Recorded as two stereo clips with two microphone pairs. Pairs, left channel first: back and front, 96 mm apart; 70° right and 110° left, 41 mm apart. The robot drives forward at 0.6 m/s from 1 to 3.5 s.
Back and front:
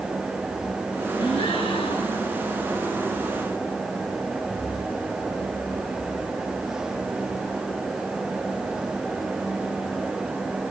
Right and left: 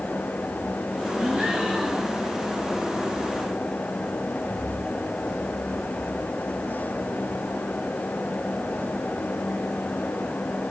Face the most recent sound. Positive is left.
turn(degrees=175)